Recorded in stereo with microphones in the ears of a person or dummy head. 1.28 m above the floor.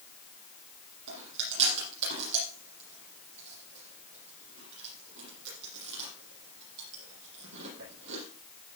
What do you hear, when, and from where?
1.1 s chewing: 65° right (ahead or behind), 6.5 m